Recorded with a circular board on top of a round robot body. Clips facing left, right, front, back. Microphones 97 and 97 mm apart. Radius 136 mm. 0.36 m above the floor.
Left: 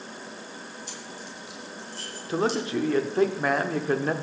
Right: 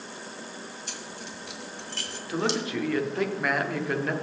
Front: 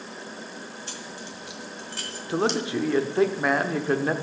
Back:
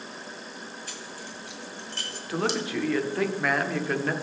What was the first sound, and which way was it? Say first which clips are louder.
Keys jangling: even, front 2 dB; 60° right.